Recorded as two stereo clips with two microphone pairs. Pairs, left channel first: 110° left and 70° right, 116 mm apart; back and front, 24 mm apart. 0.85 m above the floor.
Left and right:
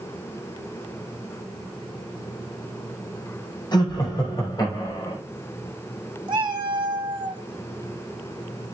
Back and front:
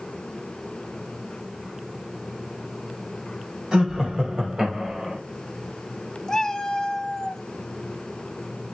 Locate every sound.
3.7 s laughter: 60° left, 6 m; by 5.2 s 55° left, 4.5 m
6.3 s a cat meowing: 115° right, 1.0 m